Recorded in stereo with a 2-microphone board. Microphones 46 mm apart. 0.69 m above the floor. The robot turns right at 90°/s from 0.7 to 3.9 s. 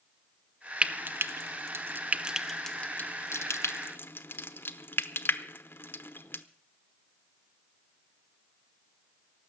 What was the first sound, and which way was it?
Frying, 25° right (ahead or behind).